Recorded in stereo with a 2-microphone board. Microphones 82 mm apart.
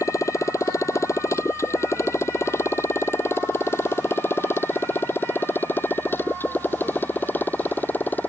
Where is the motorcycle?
40° left (ahead or behind); by 8.3 s 20° left (ahead or behind).